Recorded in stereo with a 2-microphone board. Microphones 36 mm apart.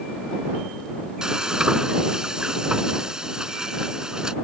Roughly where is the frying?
Centre.